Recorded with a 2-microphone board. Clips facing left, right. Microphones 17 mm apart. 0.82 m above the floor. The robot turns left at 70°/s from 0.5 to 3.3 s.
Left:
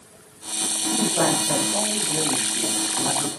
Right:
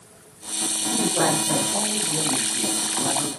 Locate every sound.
0.9 s a man speaking: 145° right, 1.3 m; by 3.3 s 50° left, 1.3 m